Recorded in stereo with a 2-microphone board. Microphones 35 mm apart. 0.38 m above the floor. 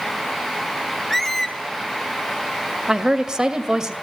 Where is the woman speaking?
20° right (ahead or behind), 2 m.